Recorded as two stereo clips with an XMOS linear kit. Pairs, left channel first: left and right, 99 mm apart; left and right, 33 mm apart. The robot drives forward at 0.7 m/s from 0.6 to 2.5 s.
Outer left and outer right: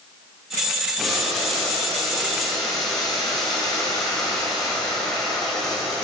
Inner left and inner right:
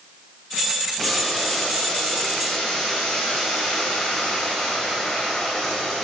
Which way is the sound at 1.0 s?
5° left (ahead or behind).